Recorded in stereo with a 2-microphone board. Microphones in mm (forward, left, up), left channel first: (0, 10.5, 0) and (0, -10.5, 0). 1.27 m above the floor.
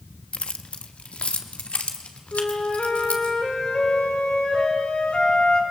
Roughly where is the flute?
Left.